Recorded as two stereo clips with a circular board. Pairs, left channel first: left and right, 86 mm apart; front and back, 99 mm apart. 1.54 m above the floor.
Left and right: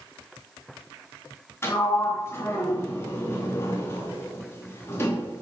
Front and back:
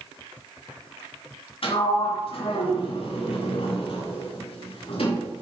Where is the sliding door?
30° left, 3 m.